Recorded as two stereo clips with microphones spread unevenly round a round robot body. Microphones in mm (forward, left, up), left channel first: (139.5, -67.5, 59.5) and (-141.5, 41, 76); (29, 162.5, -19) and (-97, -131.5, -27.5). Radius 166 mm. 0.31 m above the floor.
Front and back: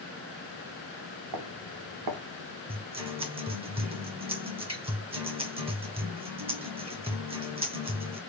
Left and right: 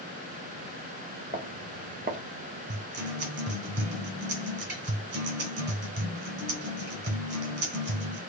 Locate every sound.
1.3 s footsteps: 175° right, 1.4 m
2.7 s a guitar: 140° right, 1.5 m